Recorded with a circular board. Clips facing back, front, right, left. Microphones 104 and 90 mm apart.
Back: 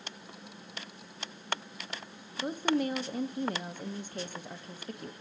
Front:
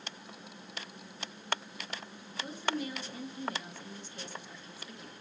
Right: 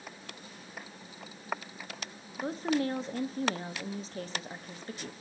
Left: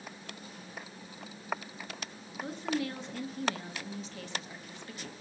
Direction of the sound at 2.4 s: 140° right.